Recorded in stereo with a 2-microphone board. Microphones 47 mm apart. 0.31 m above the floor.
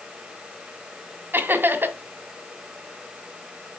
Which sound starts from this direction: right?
Laughter, at 1.3 s.